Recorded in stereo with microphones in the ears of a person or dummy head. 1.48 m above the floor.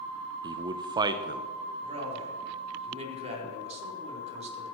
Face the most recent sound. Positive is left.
turn(degrees=-35)  # may be behind; listen again after turning